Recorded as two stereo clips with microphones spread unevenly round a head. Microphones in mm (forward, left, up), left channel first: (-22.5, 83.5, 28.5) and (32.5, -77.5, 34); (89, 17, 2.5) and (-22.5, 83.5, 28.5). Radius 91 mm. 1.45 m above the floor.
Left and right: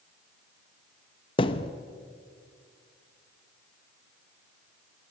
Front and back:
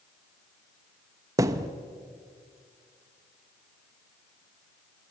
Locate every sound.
1.4 s a thud: 150° left, 0.8 m